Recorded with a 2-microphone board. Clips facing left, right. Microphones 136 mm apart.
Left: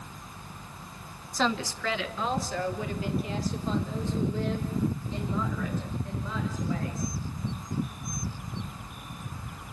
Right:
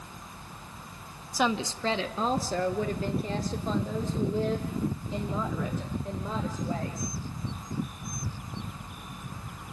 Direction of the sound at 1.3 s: 10° right (ahead or behind).